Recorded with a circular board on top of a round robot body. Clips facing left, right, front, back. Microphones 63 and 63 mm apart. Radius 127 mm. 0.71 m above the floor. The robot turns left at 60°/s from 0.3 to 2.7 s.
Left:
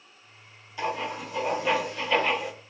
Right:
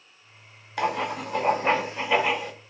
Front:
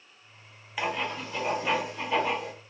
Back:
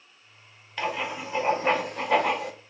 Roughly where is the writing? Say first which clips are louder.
Right 4 dB, back 1 dB; right.